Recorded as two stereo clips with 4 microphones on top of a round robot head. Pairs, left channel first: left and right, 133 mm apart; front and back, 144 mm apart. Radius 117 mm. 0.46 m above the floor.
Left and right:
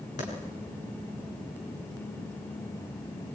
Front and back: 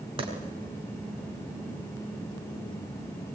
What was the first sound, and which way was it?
A clap, 130° left.